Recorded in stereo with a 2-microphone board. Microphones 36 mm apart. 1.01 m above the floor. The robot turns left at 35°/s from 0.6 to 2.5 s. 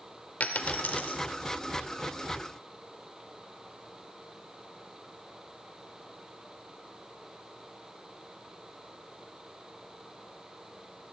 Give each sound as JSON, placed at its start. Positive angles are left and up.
{"t": 0.4, "sound": "a dropped coin", "side_deg": 50, "distance_m": 0.9}